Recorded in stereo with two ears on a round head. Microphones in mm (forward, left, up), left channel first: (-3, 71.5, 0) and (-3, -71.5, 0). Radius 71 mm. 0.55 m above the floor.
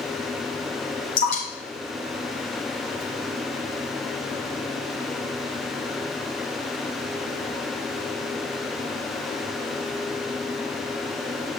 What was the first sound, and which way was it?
Dripping, 60° left (ahead or behind).